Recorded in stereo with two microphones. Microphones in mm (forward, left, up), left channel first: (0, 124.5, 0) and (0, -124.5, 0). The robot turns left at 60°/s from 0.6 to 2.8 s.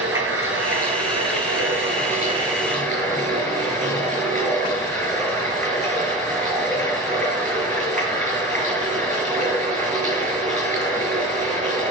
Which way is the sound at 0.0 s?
60° right.